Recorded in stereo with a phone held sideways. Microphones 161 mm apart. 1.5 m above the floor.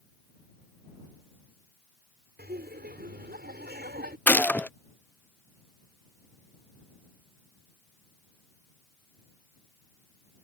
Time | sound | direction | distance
2.4 | laughter | 90° right | ?
4.3 | a gunshot | 10° left (ahead or behind) | ?